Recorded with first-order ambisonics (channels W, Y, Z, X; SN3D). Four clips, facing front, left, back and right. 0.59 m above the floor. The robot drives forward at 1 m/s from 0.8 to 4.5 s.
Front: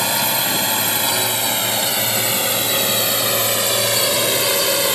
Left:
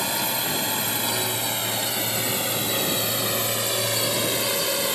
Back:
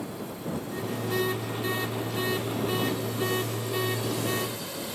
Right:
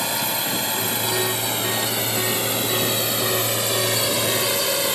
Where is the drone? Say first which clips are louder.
Right 2 dB, front 16 dB; 5° right; by 5.0 s 10° right.